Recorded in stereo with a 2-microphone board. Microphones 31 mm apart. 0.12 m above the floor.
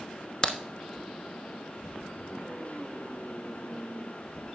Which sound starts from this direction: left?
A crack, at 0.4 s.